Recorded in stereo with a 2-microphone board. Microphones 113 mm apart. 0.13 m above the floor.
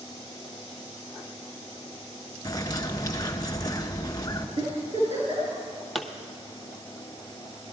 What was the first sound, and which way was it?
A bird, 35° left (ahead or behind).